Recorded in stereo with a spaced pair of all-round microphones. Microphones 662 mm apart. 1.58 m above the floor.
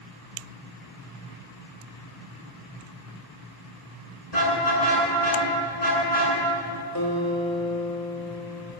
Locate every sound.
4.3 s a car horn: 65° left (ahead or behind), 10 m
7.0 s a guitar: 25° left (ahead or behind), 5.5 m